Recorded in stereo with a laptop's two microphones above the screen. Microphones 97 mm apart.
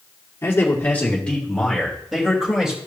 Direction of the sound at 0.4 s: 25° left (ahead or behind).